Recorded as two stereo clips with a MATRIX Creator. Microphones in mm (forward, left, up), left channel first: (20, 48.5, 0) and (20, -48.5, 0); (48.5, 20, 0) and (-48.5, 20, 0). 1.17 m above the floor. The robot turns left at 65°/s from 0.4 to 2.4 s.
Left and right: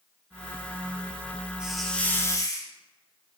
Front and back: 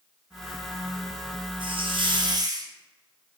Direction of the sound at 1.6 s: 170° right.